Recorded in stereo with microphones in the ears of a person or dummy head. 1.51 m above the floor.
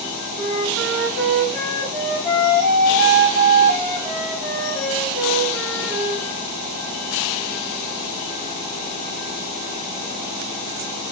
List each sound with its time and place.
0.4 s a flute: 10° left (ahead or behind), 1.6 m